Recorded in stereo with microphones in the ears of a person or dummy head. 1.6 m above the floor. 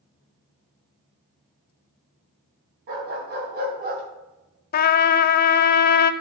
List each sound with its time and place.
2.9 s a dog barking: 55° right (ahead or behind), 3.5 m; by 4.0 s 45° right (ahead or behind), 2.5 m
4.7 s a trumpet: 50° left (ahead or behind), 0.5 m